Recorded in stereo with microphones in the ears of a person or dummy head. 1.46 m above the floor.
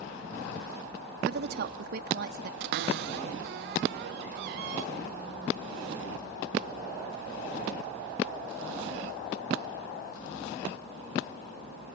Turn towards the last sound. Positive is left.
turn(degrees=-60)  # may be behind; listen again after turning